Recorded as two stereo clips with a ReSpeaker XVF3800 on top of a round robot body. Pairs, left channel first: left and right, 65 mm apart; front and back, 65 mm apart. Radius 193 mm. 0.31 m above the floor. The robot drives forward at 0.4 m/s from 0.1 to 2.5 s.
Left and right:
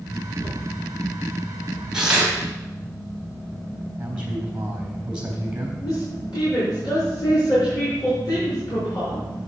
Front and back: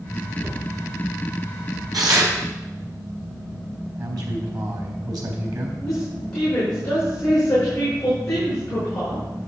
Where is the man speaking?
160° right, 3.5 m.